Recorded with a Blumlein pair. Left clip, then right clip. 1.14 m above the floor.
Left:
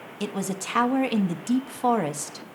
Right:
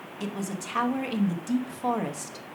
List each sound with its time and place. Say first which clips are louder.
0.2 s a man speaking: left 4 dB; 20° left, 1.0 m